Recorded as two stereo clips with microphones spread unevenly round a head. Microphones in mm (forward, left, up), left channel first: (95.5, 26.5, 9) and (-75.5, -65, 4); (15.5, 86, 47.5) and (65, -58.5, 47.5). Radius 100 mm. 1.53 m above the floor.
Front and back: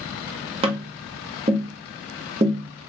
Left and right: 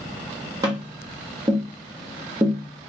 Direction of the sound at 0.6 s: 125° right.